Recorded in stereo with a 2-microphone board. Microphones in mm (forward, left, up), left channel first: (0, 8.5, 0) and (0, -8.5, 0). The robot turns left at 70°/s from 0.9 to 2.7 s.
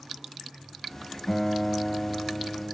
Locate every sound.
1.3 s a guitar: 165° left, 2 m; by 2.8 s 65° left, 2 m